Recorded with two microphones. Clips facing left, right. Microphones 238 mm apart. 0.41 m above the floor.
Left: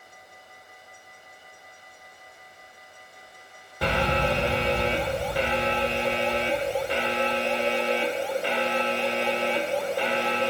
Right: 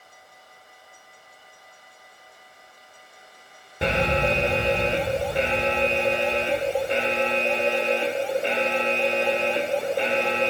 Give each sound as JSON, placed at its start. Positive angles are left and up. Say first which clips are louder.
{"t": 3.8, "sound": "an alarm", "louder": "right 2 dB", "side_deg": -25, "distance_m": 0.7}